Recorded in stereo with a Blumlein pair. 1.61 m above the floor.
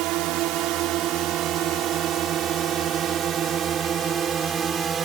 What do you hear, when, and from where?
0.0 s a drone: 40° right; by 5.0 s 20° right